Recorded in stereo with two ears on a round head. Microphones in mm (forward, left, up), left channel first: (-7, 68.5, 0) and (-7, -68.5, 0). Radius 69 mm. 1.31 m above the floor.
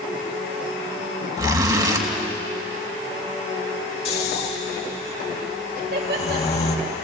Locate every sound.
1.4 s a zipper: 25° right (ahead or behind), 2.5 m
4.0 s snoring: 45° left (ahead or behind), 2.5 m
5.8 s laughter: 70° right (ahead or behind), 3.5 m